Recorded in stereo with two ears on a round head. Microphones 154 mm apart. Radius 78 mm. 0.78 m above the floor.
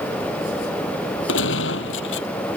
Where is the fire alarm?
I don't hear a fire alarm.